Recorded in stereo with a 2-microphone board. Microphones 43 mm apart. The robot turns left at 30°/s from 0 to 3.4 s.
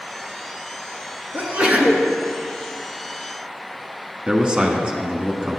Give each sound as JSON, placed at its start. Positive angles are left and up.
{"t": 1.3, "sound": "a sneeze", "side_deg": -35, "distance_m": 1.5}
{"t": 4.3, "sound": "a man speaking", "side_deg": -25, "distance_m": 1.2}